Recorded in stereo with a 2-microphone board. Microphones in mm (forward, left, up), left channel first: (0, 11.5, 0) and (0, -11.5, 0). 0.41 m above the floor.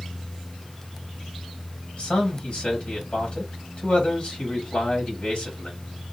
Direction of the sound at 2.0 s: 55° left (ahead or behind).